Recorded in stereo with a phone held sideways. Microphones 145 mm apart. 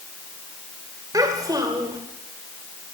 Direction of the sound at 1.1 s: 25° right (ahead or behind).